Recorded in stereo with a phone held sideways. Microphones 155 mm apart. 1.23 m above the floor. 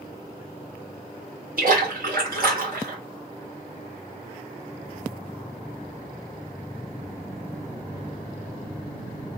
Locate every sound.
1.6 s a splash: 65° right (ahead or behind), 1.1 m